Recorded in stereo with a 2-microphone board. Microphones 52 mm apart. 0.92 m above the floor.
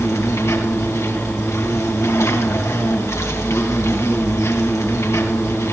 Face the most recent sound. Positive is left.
turn(degrees=80)